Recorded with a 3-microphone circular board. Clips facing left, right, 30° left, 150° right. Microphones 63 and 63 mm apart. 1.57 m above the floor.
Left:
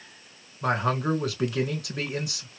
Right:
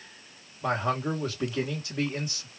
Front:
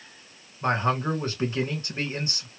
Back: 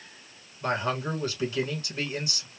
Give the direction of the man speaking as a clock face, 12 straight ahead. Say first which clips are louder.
Left 2 dB, front 4 dB; 9 o'clock.